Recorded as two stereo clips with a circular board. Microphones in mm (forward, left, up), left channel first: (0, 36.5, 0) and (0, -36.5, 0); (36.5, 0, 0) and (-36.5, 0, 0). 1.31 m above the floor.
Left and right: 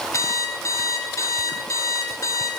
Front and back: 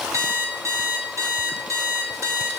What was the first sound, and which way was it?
An alarm clock, 135° left.